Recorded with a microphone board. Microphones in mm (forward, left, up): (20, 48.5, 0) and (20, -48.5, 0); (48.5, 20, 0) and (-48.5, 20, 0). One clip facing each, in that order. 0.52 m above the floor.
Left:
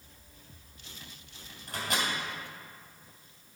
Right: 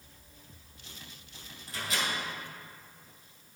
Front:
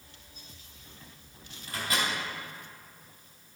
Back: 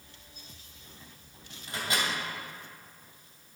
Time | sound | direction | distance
1.7 | a microwave | 115° left | 2.5 m